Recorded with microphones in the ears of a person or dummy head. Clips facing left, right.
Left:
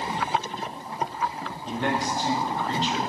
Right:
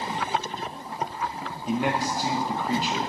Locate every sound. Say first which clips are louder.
1.7 s a man speaking: right 2 dB; 5° right (ahead or behind), 0.6 m